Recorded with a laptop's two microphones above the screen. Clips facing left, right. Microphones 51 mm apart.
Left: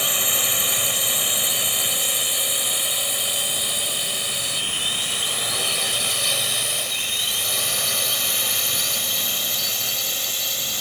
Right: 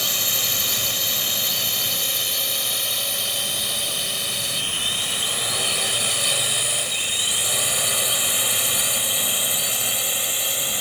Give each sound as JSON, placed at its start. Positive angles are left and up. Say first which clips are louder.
{"t": 0.0, "sound": "a drone", "louder": "left 2 dB", "side_deg": 15}